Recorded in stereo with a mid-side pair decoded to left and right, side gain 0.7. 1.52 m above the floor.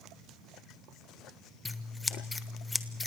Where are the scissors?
15° left, 0.9 m.